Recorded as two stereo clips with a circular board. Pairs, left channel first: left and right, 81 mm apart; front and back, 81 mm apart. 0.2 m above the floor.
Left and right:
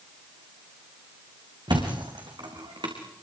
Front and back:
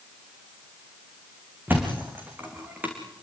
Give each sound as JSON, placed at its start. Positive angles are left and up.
{"t": 1.7, "sound": "a thud", "azimuth_deg": -115, "distance_m": 4.5}